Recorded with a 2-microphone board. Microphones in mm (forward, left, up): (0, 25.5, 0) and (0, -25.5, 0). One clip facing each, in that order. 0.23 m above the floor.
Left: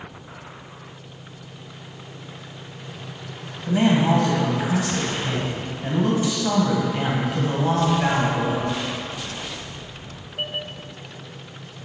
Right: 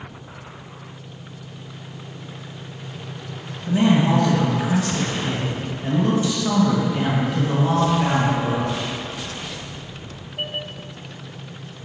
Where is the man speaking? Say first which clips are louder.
Right 1 dB; 20° left (ahead or behind), 1.4 m.